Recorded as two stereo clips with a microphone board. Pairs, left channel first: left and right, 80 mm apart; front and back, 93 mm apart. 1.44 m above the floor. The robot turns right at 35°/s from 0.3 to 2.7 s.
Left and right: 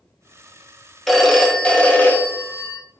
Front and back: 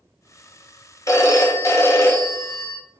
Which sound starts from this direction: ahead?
A phone ringing, at 1.1 s.